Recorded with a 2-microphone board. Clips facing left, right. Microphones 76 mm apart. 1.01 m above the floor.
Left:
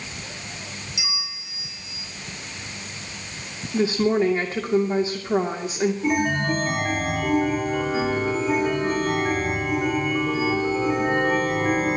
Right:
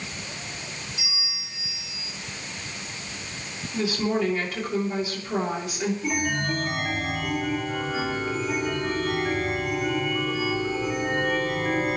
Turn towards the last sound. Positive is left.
turn(degrees=25)  # may be behind; listen again after turning